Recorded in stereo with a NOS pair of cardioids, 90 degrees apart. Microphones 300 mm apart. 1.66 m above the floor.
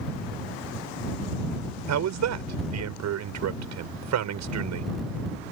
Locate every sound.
1.9 s a man speaking: 65° right